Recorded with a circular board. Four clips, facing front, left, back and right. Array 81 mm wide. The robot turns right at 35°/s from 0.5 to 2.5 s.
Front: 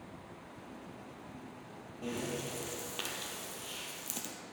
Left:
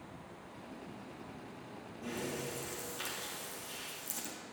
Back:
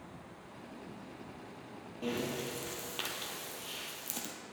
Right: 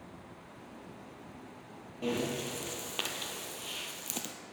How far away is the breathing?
About 1.3 m.